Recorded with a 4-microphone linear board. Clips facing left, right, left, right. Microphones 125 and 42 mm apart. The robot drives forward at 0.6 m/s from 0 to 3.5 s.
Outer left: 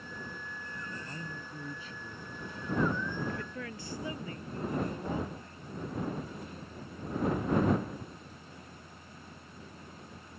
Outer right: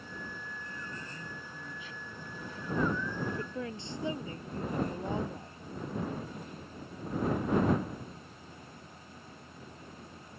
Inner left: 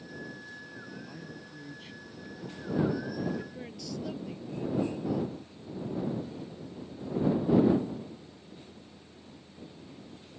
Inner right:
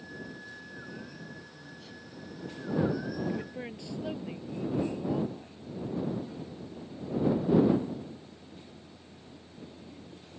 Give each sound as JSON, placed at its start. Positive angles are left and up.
{"t": 1.1, "sound": "a man speaking", "side_deg": 40}
{"t": 3.3, "sound": "a woman speaking", "side_deg": -25}